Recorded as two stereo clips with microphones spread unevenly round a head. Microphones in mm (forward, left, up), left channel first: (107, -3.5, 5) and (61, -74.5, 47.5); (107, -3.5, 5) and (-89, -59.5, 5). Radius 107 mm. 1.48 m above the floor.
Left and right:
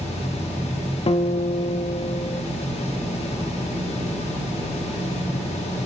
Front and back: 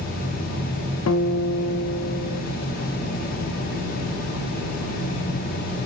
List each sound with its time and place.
1.1 s a guitar: 45° left, 0.7 m